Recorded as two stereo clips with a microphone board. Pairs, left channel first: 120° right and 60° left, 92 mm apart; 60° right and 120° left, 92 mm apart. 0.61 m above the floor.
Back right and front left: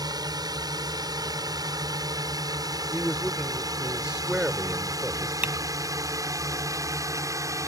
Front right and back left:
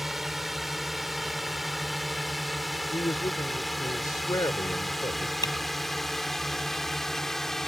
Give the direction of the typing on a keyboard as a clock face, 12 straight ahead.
12 o'clock.